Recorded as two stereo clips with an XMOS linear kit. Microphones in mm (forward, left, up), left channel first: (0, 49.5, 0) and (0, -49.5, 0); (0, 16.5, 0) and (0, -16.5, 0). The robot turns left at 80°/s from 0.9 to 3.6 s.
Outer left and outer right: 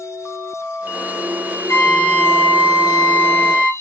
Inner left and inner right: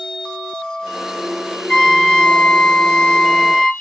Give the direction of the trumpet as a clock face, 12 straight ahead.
7 o'clock.